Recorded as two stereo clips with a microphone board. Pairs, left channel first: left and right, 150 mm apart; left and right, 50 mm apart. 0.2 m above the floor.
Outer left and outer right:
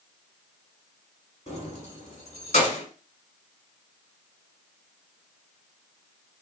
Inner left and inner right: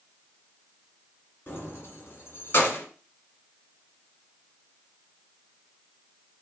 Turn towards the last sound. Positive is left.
turn(degrees=50)  # may be behind; listen again after turning